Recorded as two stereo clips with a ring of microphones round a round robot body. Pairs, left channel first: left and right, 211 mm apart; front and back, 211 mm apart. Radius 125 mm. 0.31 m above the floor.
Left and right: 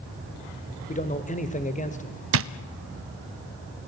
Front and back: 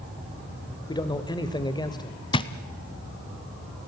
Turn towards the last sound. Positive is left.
turn(degrees=-70)